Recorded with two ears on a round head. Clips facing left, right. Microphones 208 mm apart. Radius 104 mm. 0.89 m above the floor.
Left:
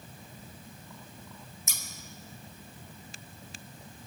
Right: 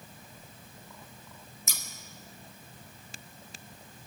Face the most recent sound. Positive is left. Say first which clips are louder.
# right 1 dB
turn(degrees=-65)  # may be behind; listen again after turning